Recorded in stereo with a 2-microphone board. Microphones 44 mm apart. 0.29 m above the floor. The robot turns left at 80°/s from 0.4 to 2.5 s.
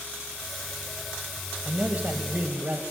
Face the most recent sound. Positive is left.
turn(degrees=-115)